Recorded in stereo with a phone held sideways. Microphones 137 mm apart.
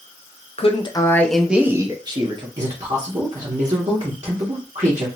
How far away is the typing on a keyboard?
I don't hear typing on a keyboard.